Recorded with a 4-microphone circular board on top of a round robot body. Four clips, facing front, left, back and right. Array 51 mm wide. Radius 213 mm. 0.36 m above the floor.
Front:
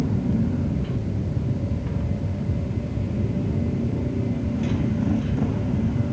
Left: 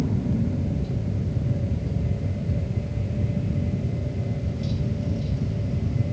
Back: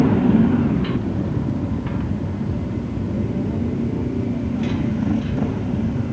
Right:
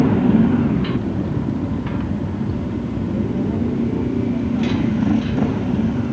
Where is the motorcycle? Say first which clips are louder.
Right 11 dB, back 9 dB; 130° right; by 6.1 s 95° right.